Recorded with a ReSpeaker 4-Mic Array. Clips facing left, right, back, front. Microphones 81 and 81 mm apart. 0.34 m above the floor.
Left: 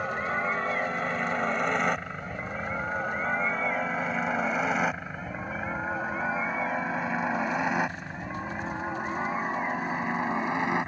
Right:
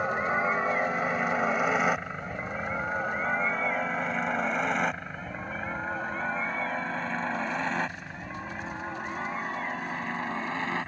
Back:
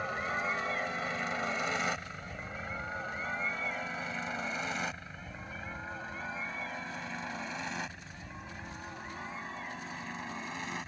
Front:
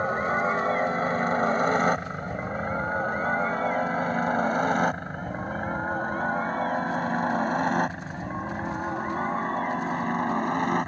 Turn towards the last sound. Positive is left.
turn(degrees=20)